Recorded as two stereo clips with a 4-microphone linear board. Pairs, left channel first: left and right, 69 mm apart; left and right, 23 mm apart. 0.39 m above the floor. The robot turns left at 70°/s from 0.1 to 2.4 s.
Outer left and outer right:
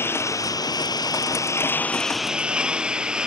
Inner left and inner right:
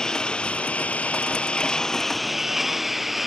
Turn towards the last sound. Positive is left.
turn(degrees=-10)  # may be behind; listen again after turning